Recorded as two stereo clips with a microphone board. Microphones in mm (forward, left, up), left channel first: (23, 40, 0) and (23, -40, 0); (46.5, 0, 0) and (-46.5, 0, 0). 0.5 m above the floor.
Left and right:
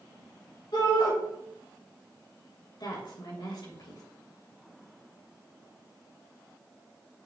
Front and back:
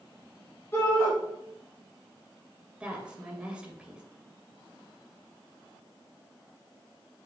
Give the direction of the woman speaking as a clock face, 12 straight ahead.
9 o'clock.